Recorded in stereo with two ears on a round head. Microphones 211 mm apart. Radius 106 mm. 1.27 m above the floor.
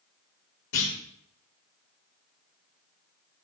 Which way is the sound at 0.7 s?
70° left (ahead or behind).